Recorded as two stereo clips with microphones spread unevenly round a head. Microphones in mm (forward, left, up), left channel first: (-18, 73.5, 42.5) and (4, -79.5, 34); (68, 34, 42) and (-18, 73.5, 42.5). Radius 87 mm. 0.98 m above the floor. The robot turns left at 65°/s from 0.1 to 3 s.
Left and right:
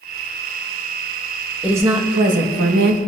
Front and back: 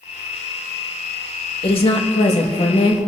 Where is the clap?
No clap in this recording.